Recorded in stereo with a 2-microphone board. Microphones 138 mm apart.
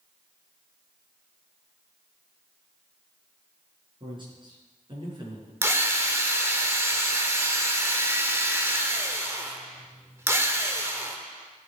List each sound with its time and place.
4.0 s a man speaking: 35° right (ahead or behind), 5 m
5.6 s a drill: 20° right (ahead or behind), 1.1 m